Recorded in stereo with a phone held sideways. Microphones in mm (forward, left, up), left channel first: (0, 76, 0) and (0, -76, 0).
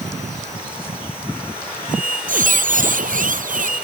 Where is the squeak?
60° right (ahead or behind).